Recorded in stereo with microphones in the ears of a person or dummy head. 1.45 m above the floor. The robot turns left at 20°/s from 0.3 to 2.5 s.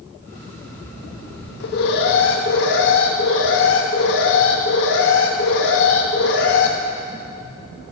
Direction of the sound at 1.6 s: 65° left (ahead or behind).